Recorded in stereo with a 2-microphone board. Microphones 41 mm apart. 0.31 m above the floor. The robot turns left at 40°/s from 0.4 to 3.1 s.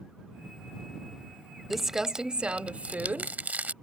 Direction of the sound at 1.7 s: 5° right.